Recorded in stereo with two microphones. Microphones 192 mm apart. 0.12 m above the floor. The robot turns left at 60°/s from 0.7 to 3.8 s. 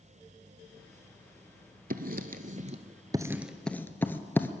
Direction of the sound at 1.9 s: 50° right (ahead or behind).